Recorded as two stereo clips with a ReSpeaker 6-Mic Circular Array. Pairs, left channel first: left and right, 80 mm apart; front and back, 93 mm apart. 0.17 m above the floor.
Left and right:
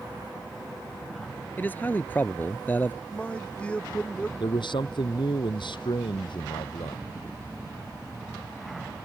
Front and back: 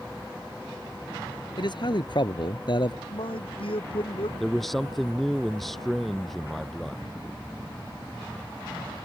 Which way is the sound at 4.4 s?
90° left.